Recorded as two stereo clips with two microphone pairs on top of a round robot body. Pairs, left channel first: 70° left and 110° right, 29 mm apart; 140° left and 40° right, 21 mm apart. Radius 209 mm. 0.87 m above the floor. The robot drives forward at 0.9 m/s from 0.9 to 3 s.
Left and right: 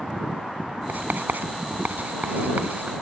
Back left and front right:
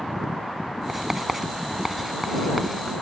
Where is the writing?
115° right; by 2.9 s 130° right.